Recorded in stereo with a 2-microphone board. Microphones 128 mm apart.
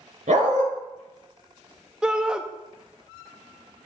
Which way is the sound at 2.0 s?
5° right (ahead or behind).